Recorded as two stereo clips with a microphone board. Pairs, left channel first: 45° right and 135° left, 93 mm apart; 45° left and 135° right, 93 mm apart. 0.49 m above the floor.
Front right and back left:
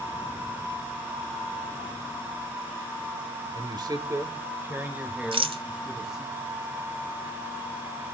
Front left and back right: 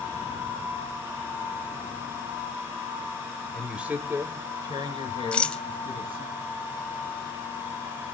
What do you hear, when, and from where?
3.5 s a man speaking: 135° left, 1.6 m; by 6.3 s 140° right, 4 m
5.3 s a rattle: 125° left, 1.2 m